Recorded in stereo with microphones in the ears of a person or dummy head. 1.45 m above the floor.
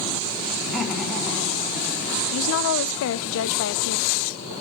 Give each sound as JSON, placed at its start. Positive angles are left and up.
{"t": 0.6, "sound": "laughter", "side_deg": 0, "distance_m": 3.5}
{"t": 2.3, "sound": "a woman speaking", "side_deg": 80, "distance_m": 1.3}